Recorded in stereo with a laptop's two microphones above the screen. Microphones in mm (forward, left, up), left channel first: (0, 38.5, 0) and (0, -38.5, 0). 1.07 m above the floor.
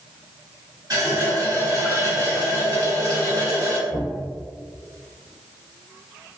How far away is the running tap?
About 1.8 m.